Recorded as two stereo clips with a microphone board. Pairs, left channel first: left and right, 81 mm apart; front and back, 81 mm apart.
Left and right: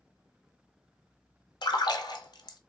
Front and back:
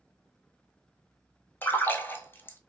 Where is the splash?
65° left, 0.5 m.